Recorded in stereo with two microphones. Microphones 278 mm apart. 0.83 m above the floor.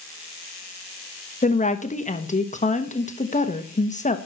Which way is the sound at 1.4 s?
25° left (ahead or behind).